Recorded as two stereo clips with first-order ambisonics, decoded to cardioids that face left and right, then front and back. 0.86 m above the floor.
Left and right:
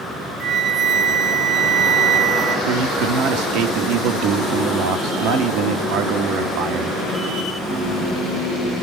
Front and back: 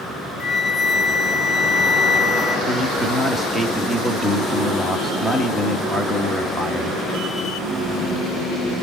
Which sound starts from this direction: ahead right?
A flute, at 0.4 s.